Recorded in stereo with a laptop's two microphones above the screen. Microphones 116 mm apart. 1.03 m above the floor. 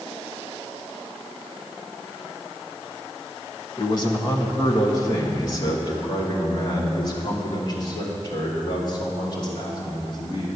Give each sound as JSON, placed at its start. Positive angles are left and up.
{"t": 3.8, "sound": "a man speaking", "side_deg": 35, "distance_m": 1.0}